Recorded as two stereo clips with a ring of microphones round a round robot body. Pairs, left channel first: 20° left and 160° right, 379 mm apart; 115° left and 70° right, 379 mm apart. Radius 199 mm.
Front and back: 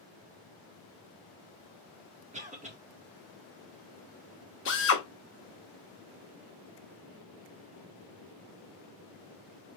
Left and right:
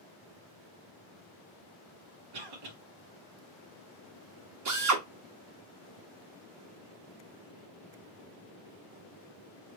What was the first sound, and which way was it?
A cough, 85° right.